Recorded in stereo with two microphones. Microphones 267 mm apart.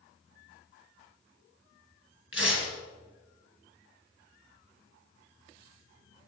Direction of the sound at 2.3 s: 50° left (ahead or behind).